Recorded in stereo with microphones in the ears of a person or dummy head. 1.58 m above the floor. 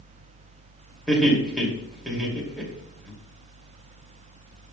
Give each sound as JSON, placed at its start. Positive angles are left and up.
{"t": 1.1, "sound": "laughter", "side_deg": -10, "distance_m": 2.5}